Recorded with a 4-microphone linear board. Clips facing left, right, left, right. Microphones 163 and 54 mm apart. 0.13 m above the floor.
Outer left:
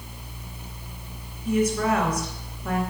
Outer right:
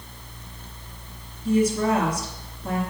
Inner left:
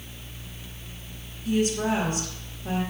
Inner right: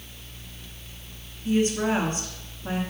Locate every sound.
1.4 s a woman speaking: 30° right (ahead or behind), 1.8 m